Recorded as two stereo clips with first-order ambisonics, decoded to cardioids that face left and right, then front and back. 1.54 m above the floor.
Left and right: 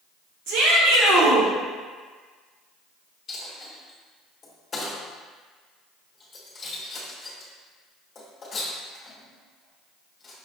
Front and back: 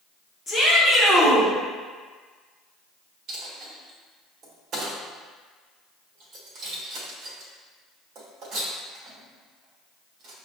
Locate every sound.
0.5 s a shout: 80° right, 1.1 m; by 1.5 s 100° right, 1.6 m
3.3 s a dropped coin: 155° left, 1.2 m